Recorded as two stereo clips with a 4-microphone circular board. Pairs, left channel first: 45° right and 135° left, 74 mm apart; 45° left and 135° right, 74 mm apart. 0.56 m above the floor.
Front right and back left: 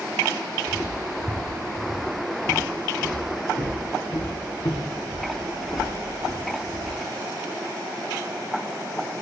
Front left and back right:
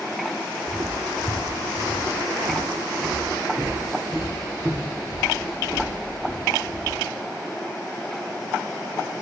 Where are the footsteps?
95° right, 1.0 m; by 7.0 s 80° right, 4.5 m.